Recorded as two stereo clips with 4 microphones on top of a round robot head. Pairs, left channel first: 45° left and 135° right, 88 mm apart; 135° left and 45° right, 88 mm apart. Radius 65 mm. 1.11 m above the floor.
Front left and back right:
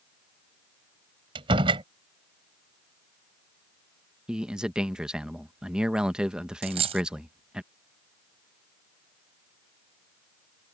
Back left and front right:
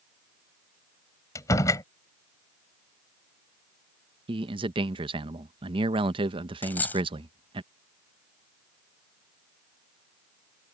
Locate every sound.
1.4 s a door slam: 170° right
4.3 s a man speaking: 55° right
6.6 s a dropped coin: 155° right